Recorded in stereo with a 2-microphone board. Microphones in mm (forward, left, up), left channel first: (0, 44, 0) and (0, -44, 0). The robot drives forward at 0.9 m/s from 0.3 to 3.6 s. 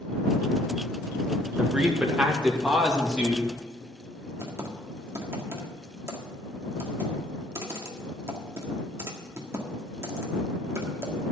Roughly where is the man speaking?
Centre.